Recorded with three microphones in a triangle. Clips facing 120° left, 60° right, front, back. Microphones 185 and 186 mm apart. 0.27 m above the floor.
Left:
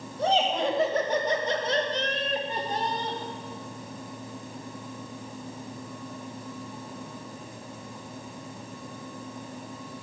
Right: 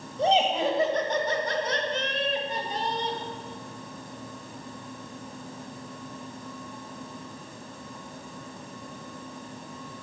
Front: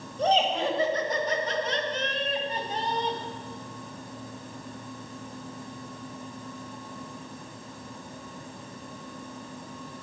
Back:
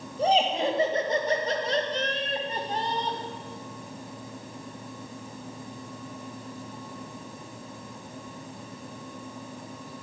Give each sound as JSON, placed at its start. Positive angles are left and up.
{"t": 0.2, "sound": "laughter", "azimuth_deg": -105, "distance_m": 1.0}